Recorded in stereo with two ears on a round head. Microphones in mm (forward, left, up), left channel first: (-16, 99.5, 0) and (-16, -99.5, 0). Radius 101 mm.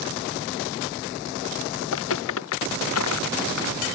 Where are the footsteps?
60° left (ahead or behind); by 3.8 s 70° left (ahead or behind).